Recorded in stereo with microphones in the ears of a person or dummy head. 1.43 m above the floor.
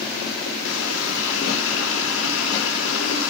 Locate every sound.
0.6 s a running tap: 70° left (ahead or behind), 3 m